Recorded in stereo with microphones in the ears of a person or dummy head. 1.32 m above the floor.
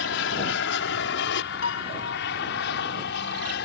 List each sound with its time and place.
0.0 s an aircraft: 60° left (ahead or behind)
1.6 s a piano: 75° left (ahead or behind)